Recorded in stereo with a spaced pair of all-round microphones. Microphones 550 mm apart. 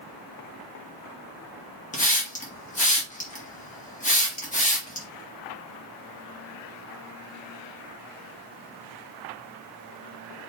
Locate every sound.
1.9 s a hiss: 15° left (ahead or behind), 1.6 m